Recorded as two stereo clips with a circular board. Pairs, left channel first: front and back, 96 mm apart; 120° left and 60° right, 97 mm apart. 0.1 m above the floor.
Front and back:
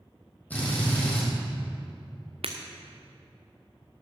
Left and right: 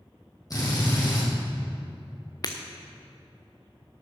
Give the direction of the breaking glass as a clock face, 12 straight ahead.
6 o'clock.